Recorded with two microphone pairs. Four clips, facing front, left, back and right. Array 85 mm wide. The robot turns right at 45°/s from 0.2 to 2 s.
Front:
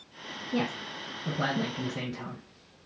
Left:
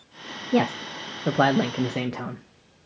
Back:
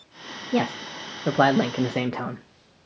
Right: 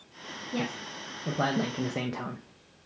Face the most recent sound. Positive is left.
turn(degrees=175)